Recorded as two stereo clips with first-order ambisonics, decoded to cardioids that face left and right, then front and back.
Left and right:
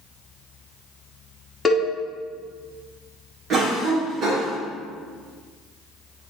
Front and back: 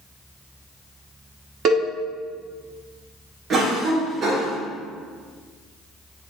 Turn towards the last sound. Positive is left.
turn(degrees=-130)